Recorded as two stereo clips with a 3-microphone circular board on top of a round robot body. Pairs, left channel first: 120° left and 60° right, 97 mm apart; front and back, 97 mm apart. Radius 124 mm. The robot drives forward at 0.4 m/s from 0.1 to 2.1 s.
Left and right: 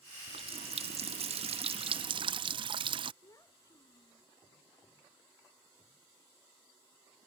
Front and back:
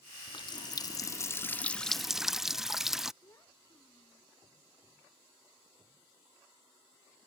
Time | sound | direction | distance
0.3 | a running tap | 40° right | ?
3.2 | a child speaking | 65° left | ?